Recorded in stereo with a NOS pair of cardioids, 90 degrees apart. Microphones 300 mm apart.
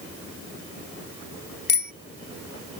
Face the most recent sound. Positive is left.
turn(degrees=35)